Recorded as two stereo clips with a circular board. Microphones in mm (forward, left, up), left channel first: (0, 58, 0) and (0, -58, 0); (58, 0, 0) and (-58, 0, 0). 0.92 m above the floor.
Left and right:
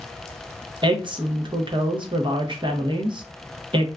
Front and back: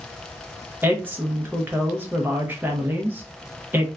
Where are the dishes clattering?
No dishes clattering in this recording.